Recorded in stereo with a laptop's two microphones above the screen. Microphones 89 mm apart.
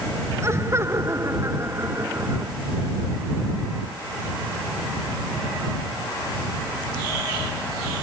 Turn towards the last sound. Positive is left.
turn(degrees=-30)  # may be behind; listen again after turning